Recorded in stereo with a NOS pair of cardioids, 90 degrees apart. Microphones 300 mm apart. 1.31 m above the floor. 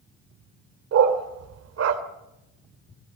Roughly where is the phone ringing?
No phone ringing in this recording.